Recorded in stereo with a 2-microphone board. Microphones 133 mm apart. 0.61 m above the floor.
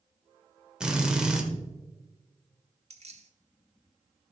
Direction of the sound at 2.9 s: 55° right (ahead or behind).